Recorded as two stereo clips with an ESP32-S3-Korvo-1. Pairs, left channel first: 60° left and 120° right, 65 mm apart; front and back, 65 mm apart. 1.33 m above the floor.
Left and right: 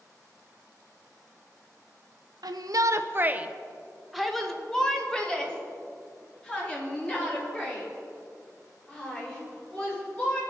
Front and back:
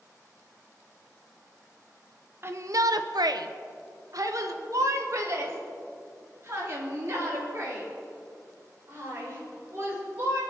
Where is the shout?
125° right, 0.6 m; by 10.4 s 125° left, 5.5 m.